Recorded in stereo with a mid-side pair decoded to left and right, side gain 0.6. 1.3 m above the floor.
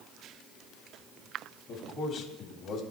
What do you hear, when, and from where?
1.7 s a man speaking: 55° left, 2 m